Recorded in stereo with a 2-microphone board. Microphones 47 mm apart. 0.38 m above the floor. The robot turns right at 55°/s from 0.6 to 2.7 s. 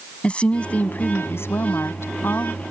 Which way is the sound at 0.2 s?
25° left.